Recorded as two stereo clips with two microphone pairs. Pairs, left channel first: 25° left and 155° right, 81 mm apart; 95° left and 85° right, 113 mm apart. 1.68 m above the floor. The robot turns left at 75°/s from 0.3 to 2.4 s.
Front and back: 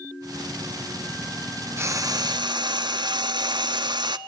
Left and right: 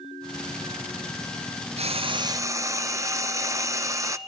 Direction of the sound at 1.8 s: 100° right.